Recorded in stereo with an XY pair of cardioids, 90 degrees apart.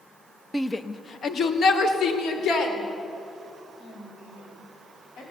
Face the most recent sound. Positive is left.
turn(degrees=80)